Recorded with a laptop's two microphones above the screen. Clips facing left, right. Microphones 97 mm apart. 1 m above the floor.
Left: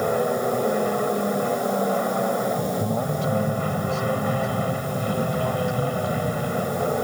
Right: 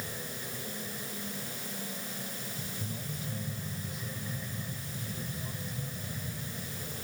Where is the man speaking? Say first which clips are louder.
Left 17 dB; 80° left.